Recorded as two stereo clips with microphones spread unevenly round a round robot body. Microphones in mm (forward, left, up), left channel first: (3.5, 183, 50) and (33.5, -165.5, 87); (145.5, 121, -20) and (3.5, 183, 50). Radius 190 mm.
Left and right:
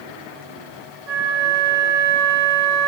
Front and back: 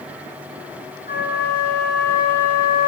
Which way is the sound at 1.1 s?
90° right.